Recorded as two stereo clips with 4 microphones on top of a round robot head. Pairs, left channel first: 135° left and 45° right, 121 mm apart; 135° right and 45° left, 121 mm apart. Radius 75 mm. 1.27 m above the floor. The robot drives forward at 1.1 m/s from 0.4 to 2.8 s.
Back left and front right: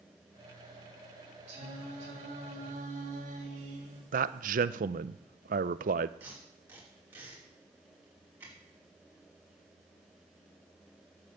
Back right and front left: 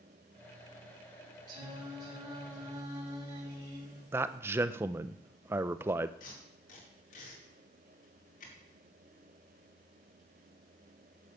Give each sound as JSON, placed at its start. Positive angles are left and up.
{"t": 1.5, "sound": "singing", "azimuth_deg": -10, "distance_m": 5.0}
{"t": 4.1, "sound": "a man speaking", "azimuth_deg": -25, "distance_m": 0.6}
{"t": 6.2, "sound": "tape being pulled", "azimuth_deg": -120, "distance_m": 4.5}